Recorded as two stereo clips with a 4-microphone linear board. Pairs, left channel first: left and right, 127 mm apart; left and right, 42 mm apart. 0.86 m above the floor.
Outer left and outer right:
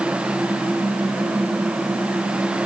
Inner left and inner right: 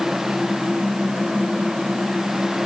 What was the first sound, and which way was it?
Only background noise.